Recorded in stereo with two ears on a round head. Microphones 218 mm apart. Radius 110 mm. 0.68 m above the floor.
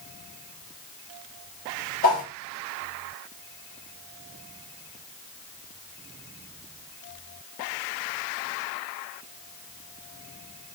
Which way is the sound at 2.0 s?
35° left (ahead or behind).